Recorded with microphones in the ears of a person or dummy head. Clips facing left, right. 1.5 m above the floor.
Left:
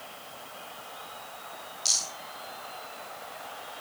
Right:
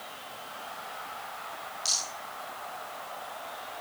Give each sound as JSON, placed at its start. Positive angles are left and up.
{"t": 1.9, "sound": "a rattle", "side_deg": -5, "distance_m": 4.5}